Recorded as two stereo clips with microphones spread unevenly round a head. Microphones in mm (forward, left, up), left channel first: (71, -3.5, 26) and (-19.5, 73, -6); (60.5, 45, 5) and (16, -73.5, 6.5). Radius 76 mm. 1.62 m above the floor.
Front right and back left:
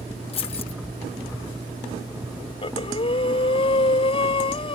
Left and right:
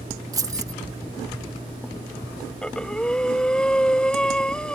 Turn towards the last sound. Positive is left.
turn(degrees=-15)